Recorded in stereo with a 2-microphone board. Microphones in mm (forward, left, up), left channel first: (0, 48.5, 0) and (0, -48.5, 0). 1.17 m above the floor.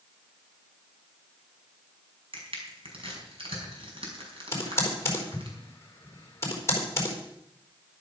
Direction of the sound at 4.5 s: 30° left (ahead or behind).